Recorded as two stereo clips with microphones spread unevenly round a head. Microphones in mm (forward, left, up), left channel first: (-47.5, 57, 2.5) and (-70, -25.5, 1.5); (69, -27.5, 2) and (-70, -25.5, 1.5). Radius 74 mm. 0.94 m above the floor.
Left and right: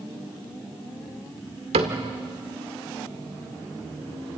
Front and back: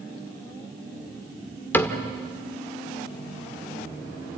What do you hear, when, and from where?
1.7 s a cupboard door: 75° right, 1.6 m